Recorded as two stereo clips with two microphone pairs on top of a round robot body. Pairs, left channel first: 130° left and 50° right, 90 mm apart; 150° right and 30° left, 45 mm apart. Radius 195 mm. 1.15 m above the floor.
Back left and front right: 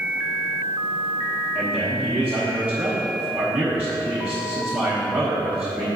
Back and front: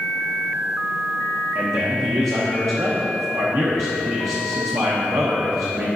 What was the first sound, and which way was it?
A man speaking, 25° left.